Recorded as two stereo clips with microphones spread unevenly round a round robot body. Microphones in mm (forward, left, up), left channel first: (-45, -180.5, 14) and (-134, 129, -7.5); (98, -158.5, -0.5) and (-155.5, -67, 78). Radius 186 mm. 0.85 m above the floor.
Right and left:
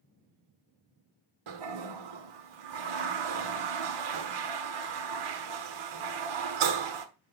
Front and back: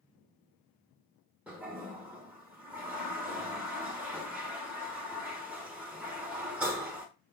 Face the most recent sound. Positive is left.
turn(degrees=75)